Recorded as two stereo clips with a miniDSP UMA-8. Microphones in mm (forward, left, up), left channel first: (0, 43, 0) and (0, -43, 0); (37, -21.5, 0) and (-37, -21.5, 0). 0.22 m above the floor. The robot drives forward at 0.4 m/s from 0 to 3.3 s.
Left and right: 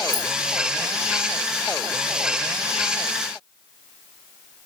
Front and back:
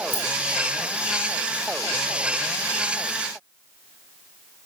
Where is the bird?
I don't hear a bird.